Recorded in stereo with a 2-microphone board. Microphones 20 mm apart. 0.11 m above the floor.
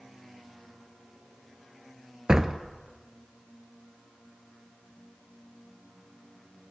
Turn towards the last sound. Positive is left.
turn(degrees=-30)  # may be behind; listen again after turning